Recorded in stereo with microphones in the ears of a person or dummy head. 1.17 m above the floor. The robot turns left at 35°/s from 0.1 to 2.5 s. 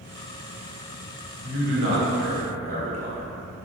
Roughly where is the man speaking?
Right.